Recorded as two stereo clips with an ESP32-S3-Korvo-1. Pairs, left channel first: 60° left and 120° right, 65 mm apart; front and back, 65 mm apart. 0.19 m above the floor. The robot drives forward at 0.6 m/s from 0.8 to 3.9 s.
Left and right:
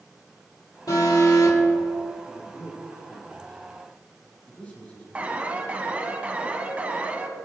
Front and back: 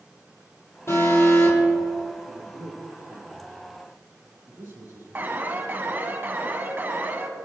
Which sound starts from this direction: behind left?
A man speaking, at 2.3 s.